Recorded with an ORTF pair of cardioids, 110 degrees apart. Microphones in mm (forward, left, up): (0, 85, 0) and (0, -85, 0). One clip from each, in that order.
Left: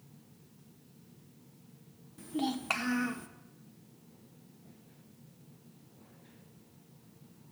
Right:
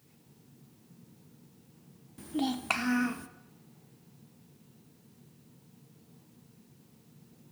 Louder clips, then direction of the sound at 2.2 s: Right 2 dB; 15° right.